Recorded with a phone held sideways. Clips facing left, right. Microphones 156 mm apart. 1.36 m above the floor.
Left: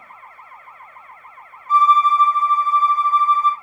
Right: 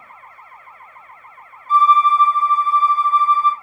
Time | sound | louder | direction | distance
1.7 | a violin | right 1 dB | 35° right (ahead or behind) | 2.5 m